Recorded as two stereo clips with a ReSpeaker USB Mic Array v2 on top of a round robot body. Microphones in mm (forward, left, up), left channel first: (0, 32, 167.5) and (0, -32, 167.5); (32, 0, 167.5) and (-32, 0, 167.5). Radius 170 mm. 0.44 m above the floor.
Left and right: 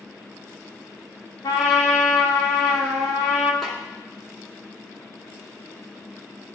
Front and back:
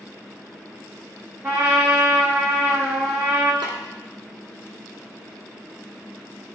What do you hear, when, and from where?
1.4 s a trumpet: 115° left, 0.7 m
3.6 s a snare drum: straight behind, 1.3 m